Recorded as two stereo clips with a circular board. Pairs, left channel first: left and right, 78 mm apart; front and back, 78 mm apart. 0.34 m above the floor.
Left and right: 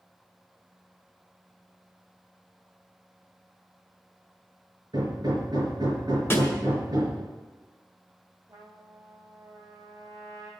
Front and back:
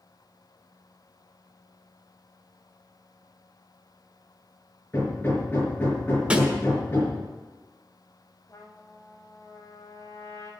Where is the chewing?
No chewing in this recording.